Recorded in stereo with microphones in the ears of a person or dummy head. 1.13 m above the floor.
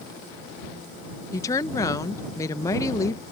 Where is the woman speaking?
20° left (ahead or behind).